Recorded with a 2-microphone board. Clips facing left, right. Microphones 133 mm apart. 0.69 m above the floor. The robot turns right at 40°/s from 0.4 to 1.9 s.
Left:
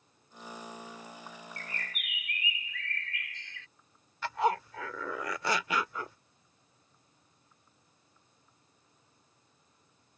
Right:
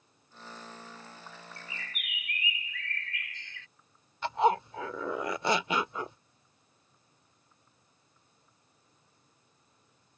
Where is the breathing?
No breathing in this recording.